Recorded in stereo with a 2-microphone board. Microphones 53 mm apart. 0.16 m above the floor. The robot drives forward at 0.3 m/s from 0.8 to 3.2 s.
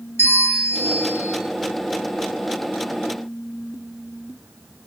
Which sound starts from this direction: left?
A bell, at 0.2 s.